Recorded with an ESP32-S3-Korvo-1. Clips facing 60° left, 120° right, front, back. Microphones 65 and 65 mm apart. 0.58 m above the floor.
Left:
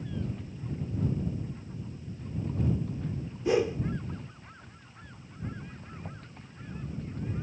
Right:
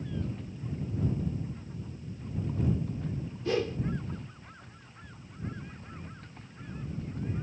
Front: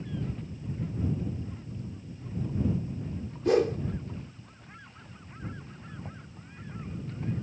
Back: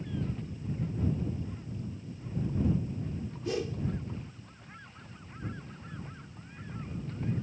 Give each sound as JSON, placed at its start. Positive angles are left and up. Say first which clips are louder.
{"t": 3.5, "sound": "a whoosh", "louder": "left 4 dB, front 10 dB", "azimuth_deg": -10}
{"t": 6.0, "sound": "knocking", "louder": "left 2 dB, front 2 dB", "azimuth_deg": 55}